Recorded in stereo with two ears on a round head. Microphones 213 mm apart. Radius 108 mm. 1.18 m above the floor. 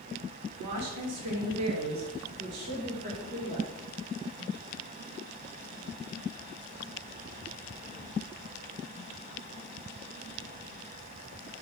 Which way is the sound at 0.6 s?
75° right (ahead or behind).